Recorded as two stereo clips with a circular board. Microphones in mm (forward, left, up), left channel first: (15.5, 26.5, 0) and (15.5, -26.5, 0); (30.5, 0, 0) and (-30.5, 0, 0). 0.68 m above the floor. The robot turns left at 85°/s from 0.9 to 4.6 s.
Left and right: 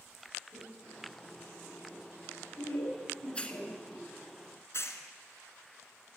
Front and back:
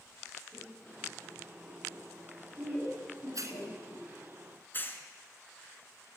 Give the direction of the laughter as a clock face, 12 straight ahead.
3 o'clock.